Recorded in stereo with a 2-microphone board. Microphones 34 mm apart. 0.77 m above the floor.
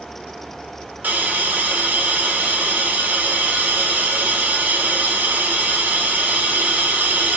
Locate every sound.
1.0 s a hiss: 60° right (ahead or behind), 1.5 m